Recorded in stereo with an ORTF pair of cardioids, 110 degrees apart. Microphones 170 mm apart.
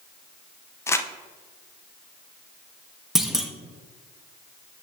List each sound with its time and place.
0.9 s crumpling: 15° left, 0.7 m
3.1 s a clunk: straight ahead, 0.9 m